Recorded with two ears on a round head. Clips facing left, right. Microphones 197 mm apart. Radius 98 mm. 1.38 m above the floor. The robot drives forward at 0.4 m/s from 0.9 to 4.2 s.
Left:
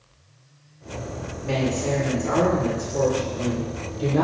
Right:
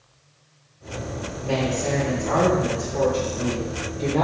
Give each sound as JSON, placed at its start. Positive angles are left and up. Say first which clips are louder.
{"t": 1.4, "sound": "a woman speaking", "louder": "even", "side_deg": 30, "distance_m": 1.8}